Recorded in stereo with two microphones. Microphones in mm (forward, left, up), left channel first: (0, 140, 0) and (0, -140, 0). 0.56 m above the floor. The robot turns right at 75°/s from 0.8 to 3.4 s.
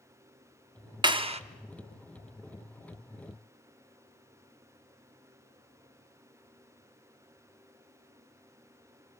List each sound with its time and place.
1.0 s a clap: 15° right (ahead or behind), 0.6 m; by 1.4 s 20° right (ahead or behind), 0.6 m